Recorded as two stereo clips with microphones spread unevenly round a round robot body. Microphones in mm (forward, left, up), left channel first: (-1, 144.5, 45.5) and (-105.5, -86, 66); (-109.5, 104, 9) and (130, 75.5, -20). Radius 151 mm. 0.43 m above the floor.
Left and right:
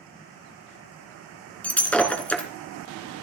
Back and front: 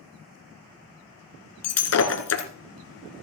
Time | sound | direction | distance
1.6 | breaking glass | 150° left | 2.5 m